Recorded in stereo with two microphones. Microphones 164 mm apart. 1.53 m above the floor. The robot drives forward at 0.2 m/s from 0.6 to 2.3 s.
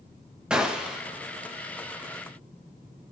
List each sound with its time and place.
0.5 s a gunshot: 5° right (ahead or behind), 0.7 m